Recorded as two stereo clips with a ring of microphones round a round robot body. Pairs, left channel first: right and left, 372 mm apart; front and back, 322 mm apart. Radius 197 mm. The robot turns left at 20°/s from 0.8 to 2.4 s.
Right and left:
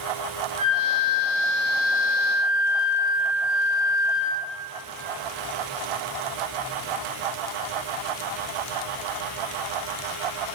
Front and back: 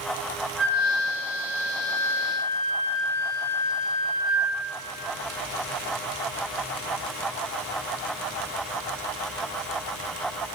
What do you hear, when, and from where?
0.6 s a flute: 90° left, 4.5 m; by 4.5 s 55° left, 4.5 m